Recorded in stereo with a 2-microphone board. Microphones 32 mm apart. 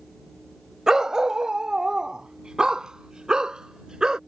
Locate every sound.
0.9 s a dog barking: 20° right (ahead or behind); by 4.2 s 25° right (ahead or behind)